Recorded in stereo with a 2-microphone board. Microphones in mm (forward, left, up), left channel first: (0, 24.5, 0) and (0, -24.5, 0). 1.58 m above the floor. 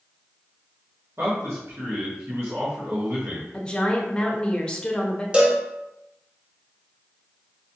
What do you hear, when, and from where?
1.2 s a man speaking: 65° right (ahead or behind), 1.6 m
3.5 s a woman speaking: 20° left (ahead or behind), 0.8 m
5.3 s a cowbell: 20° right (ahead or behind), 1.0 m